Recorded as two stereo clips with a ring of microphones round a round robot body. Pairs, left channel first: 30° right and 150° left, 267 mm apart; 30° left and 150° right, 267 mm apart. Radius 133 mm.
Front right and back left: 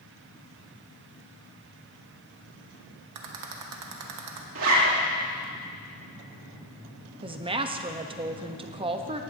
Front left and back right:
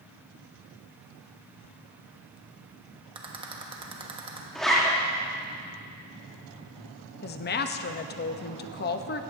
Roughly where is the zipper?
Behind left.